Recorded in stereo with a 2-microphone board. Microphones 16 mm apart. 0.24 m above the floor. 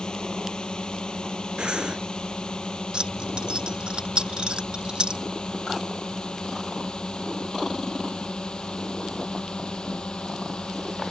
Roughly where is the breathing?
Right.